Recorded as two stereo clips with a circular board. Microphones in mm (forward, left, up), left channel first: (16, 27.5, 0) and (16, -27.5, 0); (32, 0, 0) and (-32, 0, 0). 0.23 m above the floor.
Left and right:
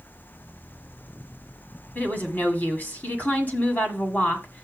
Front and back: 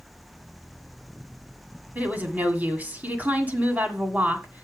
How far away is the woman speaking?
About 1.8 m.